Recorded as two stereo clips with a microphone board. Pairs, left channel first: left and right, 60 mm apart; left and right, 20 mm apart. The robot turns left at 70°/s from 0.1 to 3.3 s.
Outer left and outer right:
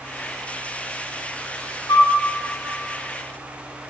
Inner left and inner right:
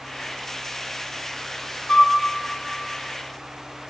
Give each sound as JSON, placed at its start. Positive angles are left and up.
{"t": 1.9, "sound": "a flute", "side_deg": 70, "distance_m": 0.9}